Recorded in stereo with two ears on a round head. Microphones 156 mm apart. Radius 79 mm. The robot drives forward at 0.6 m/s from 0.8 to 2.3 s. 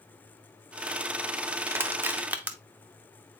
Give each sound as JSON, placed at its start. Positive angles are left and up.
{"t": 1.7, "sound": "crushing", "side_deg": -15, "distance_m": 0.6}